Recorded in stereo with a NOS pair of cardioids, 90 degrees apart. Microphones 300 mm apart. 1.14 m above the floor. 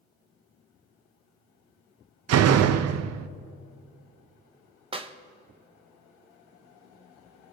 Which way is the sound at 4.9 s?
20° right.